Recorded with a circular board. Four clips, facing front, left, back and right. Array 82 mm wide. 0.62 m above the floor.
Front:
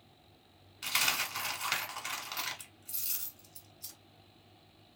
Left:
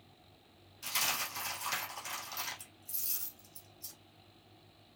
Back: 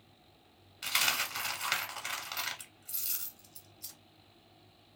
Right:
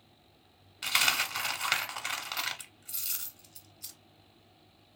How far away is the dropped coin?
About 0.8 m.